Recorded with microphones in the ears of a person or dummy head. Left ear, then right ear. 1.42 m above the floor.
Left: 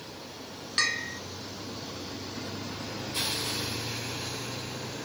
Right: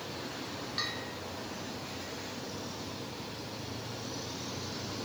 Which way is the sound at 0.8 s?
55° left (ahead or behind).